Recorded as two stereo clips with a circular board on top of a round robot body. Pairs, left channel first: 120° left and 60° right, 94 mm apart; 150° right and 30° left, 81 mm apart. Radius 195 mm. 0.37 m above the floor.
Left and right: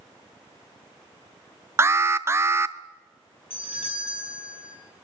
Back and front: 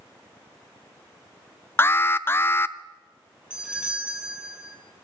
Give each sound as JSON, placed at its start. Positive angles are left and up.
{"t": 1.8, "sound": "an alarm", "azimuth_deg": -105, "distance_m": 0.6}
{"t": 3.5, "sound": "a doorbell", "azimuth_deg": 105, "distance_m": 5.5}